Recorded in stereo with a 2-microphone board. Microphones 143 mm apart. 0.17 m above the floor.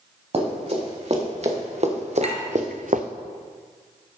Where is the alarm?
No alarm in this recording.